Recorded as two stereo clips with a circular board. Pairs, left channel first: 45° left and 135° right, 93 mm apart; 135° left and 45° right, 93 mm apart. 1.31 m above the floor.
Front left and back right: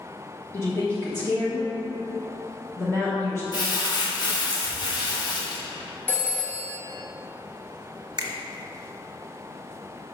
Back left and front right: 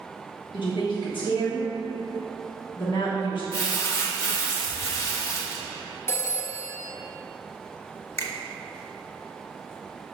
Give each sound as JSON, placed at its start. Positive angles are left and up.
{"t": 0.5, "sound": "a woman speaking", "azimuth_deg": 110, "distance_m": 1.1}
{"t": 3.5, "sound": "crumpling", "azimuth_deg": 80, "distance_m": 1.1}
{"t": 6.1, "sound": "a phone ringing", "azimuth_deg": 100, "distance_m": 0.7}
{"t": 8.2, "sound": "a finger snap", "azimuth_deg": -170, "distance_m": 0.7}